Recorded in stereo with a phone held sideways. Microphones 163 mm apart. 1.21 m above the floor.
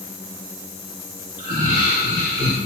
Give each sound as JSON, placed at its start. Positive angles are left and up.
{"t": 1.4, "sound": "laughter", "side_deg": -50, "distance_m": 2.5}